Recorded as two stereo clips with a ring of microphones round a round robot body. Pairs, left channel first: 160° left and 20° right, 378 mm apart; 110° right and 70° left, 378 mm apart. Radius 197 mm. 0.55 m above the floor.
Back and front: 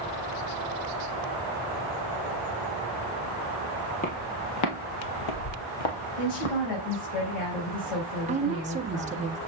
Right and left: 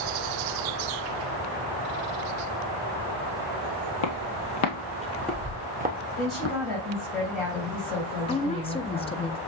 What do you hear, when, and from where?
4.0 s footsteps: 135° right, 1.4 m; by 6.6 s 125° left, 2 m
6.2 s a woman speaking: 160° left, 3.5 m
8.3 s a woman speaking: 60° right, 0.7 m